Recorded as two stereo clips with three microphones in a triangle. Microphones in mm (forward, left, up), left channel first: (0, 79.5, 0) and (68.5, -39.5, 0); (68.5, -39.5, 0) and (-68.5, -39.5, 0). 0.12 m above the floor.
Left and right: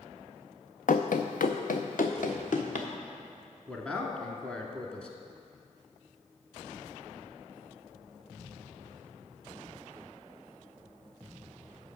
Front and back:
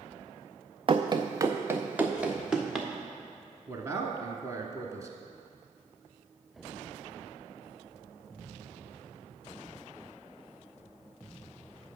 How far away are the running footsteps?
About 0.7 m.